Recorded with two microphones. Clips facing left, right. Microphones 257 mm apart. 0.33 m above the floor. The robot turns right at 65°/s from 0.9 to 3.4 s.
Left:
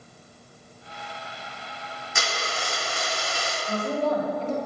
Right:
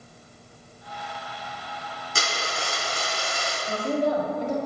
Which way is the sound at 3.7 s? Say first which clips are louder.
Right 1 dB; 15° right (ahead or behind).